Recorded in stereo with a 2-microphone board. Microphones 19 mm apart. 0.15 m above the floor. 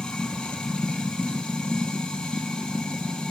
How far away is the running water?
About 0.8 m.